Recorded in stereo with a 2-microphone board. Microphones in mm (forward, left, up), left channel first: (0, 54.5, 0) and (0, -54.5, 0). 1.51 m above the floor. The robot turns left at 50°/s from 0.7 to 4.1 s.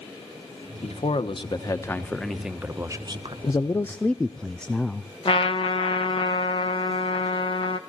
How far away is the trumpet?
About 1.4 m.